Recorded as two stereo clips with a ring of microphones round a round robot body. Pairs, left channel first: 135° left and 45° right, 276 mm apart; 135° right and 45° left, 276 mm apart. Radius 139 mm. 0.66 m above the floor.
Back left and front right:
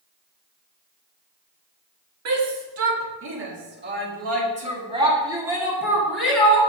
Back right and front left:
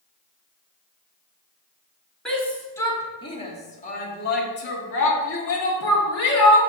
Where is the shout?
50° right, 2.0 m; by 6.6 s 140° right, 2 m.